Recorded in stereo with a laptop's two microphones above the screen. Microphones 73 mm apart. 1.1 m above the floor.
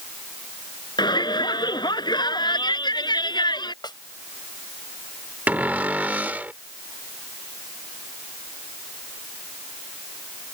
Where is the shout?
85° left.